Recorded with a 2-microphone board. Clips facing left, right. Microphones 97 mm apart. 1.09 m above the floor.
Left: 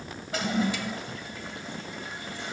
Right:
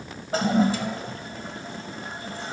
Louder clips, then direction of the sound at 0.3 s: Right 6 dB; 40° right (ahead or behind).